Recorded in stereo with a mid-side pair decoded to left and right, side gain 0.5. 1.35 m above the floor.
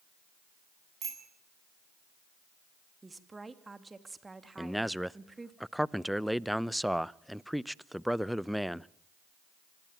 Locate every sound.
1.0 s a bicycle bell: 50° right, 9 m
3.0 s a woman speaking: 20° right, 2.5 m
4.6 s a man speaking: 5° right, 0.7 m